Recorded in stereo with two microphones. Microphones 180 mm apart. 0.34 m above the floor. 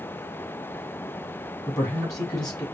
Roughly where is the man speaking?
Left.